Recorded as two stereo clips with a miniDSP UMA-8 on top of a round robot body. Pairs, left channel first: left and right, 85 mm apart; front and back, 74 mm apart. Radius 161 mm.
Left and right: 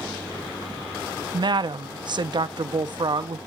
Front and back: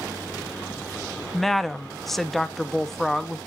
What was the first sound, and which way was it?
A woman speaking, 90° right.